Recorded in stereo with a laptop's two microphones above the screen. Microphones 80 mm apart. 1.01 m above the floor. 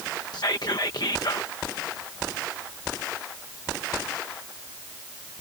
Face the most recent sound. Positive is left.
turn(degrees=60)  # may be behind; listen again after turning